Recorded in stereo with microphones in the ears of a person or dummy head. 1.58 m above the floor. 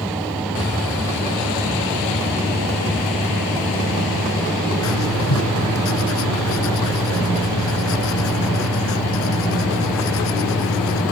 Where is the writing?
90° left.